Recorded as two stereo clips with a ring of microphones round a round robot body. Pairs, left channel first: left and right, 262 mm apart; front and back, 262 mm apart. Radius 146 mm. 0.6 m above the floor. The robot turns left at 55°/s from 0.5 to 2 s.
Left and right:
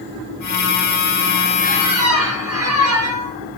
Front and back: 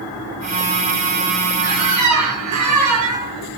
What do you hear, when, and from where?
1.6 s a squeak: 150° right, 5 m; by 3.3 s 170° right, 5 m